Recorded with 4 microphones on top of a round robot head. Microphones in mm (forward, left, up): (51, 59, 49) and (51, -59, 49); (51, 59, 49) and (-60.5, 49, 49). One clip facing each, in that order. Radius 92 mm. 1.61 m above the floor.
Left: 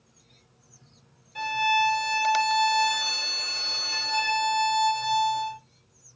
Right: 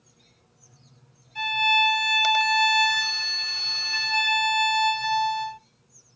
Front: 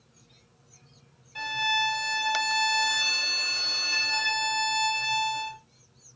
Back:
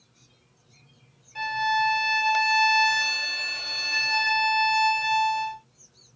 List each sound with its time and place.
1.4 s a violin: 85° left, 1.8 m